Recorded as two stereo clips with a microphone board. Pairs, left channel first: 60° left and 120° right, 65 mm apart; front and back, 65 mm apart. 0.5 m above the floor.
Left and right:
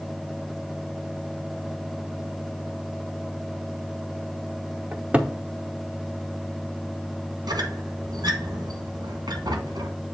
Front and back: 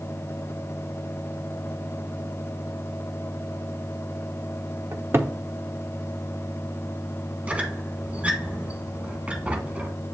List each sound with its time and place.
4.9 s a cupboard door: 175° right, 0.7 m
7.5 s a squeak: 110° right, 1.2 m